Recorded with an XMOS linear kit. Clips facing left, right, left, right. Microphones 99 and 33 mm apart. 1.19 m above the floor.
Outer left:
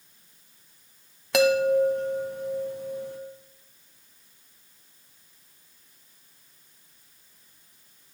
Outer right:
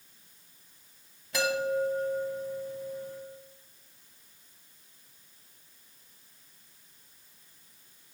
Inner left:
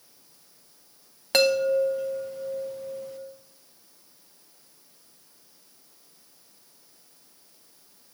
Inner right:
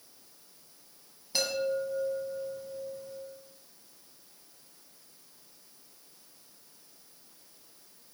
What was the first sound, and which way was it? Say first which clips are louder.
A chime: outer left 9 dB, inner left 9 dB; 75° left (ahead or behind).